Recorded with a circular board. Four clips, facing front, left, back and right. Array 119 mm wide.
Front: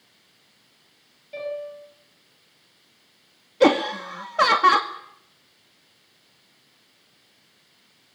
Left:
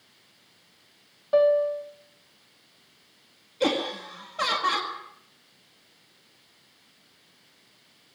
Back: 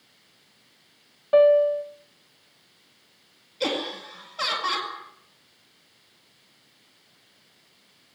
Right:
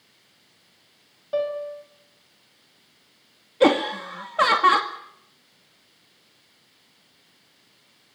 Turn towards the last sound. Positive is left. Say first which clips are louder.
# right 8 dB, front 11 dB
turn(degrees=-35)